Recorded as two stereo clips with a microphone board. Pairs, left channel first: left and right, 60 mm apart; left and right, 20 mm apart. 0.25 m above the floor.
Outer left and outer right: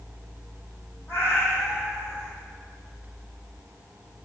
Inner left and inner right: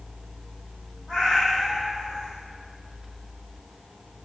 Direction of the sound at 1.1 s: 30° left (ahead or behind).